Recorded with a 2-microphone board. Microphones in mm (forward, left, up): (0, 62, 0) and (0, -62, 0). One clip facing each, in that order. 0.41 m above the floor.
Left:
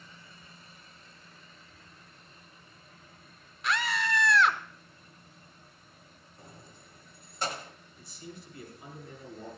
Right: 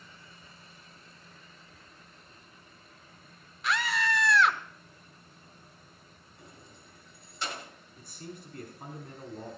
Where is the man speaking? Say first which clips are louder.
Right 2 dB; 50° right (ahead or behind), 4 m.